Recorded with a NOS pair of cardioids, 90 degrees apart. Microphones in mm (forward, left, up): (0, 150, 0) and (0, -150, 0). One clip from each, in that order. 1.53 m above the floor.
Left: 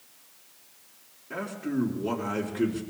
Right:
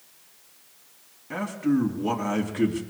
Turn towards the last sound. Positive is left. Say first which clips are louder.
# right 6 dB
turn(degrees=-55)